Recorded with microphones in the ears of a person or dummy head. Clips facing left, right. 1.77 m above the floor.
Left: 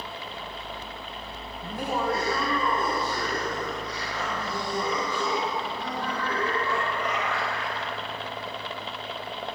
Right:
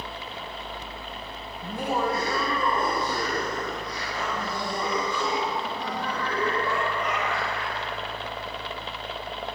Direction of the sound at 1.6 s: 55° right (ahead or behind).